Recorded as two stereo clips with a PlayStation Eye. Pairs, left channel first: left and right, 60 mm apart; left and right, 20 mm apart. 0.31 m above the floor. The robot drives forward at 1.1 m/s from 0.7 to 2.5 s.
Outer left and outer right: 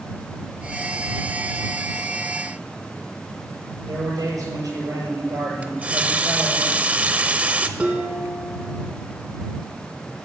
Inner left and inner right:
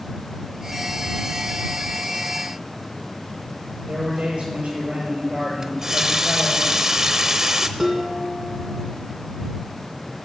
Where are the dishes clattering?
20° right (ahead or behind), 2 m.